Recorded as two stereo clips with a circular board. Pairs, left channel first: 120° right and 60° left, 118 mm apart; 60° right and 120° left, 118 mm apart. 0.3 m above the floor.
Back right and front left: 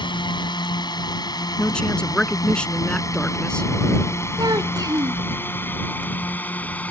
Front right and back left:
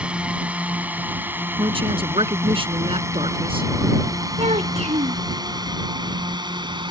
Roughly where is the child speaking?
Left.